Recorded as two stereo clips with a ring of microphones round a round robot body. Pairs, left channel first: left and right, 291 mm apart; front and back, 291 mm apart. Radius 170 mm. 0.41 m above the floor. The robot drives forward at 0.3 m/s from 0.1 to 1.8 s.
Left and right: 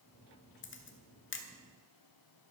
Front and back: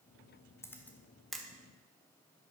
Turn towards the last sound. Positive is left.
turn(degrees=100)